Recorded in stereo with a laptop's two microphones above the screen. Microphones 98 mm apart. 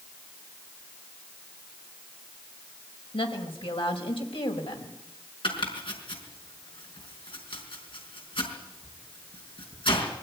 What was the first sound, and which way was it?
A woman speaking, 80° left.